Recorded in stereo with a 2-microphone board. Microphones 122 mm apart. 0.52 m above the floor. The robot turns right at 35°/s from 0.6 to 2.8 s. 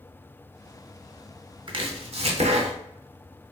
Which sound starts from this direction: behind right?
Chopping, at 1.7 s.